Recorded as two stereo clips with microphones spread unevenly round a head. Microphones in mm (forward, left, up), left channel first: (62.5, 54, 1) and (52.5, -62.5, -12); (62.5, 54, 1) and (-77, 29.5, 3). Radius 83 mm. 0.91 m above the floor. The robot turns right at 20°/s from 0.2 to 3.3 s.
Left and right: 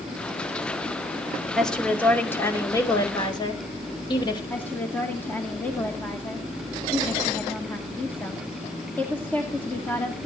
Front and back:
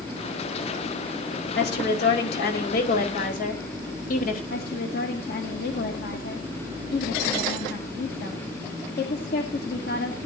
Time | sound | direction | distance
1.6 | a woman speaking | straight ahead | 4 m
4.5 | a woman speaking | 10° left | 2 m